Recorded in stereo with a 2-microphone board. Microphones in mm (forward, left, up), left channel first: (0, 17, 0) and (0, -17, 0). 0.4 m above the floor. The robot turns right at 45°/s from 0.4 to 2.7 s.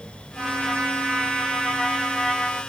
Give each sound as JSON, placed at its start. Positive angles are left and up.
{"t": 0.4, "sound": "a trumpet", "azimuth_deg": -105, "distance_m": 1.9}